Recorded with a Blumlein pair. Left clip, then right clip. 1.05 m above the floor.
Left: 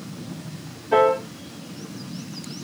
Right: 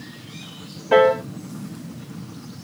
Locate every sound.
0.9 s a piano: 60° right, 0.9 m